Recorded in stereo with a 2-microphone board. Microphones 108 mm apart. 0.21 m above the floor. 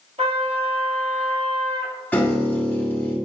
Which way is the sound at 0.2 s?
80° right.